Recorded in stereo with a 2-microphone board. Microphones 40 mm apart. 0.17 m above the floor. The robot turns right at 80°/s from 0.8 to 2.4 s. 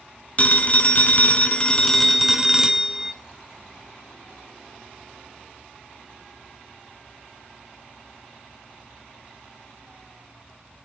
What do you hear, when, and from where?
0.4 s a phone ringing: 70° left, 0.8 m; by 3.1 s 160° right, 0.8 m